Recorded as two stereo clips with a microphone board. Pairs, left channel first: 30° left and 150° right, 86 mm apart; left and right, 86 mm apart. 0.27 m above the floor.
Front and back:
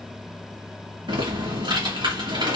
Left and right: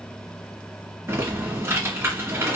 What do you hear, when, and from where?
1.1 s typing on a keyboard: 150° right, 1.9 m